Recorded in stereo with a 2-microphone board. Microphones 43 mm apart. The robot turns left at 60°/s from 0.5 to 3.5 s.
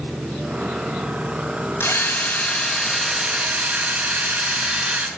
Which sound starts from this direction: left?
A drill, at 1.8 s.